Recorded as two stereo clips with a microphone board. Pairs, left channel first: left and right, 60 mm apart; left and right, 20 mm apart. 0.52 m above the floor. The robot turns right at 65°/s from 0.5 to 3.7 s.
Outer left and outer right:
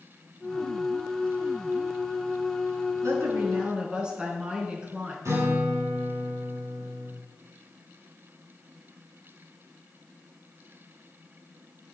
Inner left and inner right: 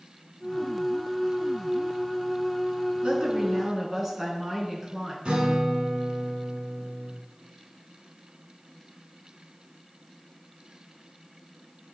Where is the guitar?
60° right (ahead or behind), 5 m.